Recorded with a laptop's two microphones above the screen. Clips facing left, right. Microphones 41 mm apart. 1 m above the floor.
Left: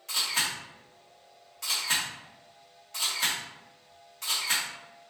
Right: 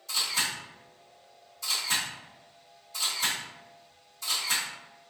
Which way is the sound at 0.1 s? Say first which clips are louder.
Left 1 dB; 65° left (ahead or behind).